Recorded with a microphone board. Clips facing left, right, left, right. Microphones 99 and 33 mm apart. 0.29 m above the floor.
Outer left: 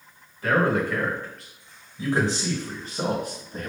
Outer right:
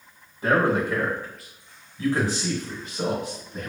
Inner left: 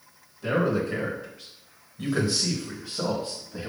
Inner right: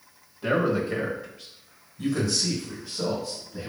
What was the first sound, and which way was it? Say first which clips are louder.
A man speaking: outer right 1 dB, inner right 1 dB; 25° right (ahead or behind).